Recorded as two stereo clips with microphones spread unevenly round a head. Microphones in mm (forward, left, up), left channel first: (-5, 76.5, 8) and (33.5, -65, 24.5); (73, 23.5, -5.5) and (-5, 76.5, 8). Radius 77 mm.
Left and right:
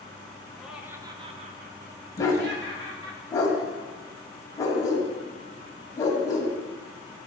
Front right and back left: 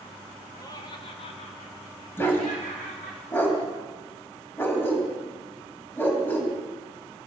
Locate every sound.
0.6 s laughter: 15° left, 1.5 m; by 3.2 s 80° right, 3 m
2.2 s a dog barking: 35° left, 1.9 m